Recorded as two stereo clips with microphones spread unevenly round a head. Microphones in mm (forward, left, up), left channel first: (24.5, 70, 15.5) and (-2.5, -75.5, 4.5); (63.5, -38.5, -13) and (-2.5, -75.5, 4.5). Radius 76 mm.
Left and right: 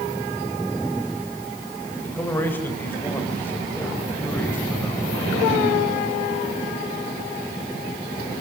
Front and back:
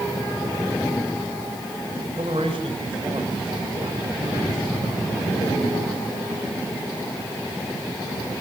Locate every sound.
2.0 s a man speaking: 155° left, 5 m